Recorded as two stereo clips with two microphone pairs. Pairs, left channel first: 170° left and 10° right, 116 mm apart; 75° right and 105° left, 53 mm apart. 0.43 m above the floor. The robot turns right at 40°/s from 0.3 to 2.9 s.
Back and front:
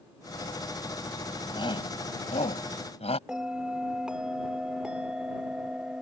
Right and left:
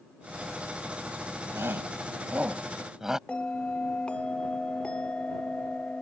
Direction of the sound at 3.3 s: 85° right.